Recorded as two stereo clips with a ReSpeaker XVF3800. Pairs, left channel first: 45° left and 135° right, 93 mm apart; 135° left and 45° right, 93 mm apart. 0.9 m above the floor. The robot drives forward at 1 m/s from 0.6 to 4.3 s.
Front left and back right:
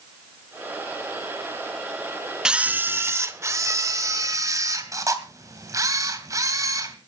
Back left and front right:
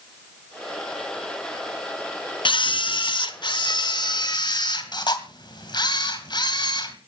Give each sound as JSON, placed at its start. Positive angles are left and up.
{"t": 2.5, "sound": "a camera shutter", "azimuth_deg": 145, "distance_m": 0.6}